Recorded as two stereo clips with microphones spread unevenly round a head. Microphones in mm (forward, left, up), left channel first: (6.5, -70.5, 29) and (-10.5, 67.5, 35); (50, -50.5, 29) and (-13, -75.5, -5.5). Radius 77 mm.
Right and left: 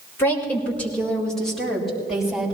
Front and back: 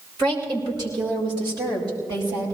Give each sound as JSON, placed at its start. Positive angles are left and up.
{"t": 0.2, "sound": "a woman speaking", "azimuth_deg": -160, "distance_m": 4.0}